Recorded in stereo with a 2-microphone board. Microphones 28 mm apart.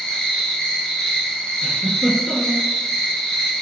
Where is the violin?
I don't hear a violin.